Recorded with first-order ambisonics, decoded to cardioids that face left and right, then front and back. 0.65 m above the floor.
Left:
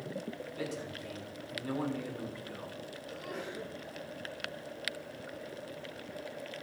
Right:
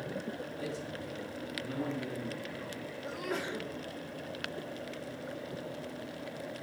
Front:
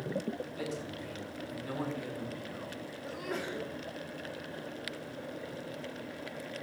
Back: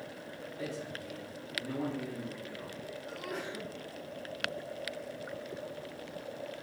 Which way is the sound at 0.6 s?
55° left.